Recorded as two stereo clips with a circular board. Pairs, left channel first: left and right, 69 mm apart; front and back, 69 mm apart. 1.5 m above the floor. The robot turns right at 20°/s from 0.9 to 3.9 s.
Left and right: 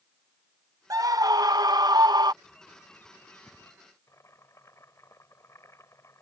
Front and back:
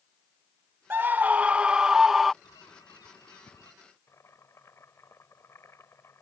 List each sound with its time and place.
0.9 s a scream: 120° right; by 2.3 s 90° right
2.4 s a bird: 10° left; by 3.7 s 35° left
4.1 s boiling: 50° left